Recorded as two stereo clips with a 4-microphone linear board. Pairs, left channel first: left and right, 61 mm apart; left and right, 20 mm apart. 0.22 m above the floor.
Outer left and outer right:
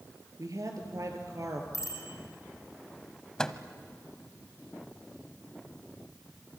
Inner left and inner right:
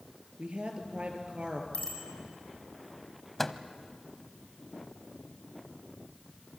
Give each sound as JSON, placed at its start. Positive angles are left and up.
{"t": 0.4, "sound": "a woman speaking", "side_deg": -65, "distance_m": 3.5}
{"t": 1.7, "sound": "a bicycle bell", "side_deg": 55, "distance_m": 6.5}
{"t": 3.4, "sound": "a microwave", "side_deg": 10, "distance_m": 0.9}